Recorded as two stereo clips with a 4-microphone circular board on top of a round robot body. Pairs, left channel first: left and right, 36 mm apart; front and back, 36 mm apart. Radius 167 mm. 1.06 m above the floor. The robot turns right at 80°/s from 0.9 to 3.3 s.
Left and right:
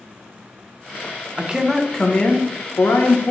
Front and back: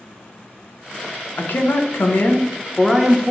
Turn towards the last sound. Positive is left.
turn(degrees=120)